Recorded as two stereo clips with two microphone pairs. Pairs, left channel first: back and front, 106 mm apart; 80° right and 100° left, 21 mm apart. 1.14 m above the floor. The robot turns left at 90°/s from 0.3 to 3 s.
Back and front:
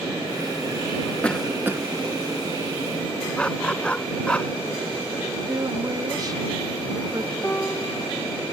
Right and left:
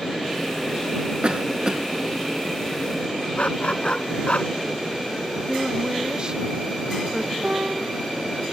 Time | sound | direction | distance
1.2 | a cough | 105° left | ?
3.4 | a dog barking | 100° right | ?
5.5 | a woman speaking | 50° left | ?
7.4 | a piano | 110° left | ?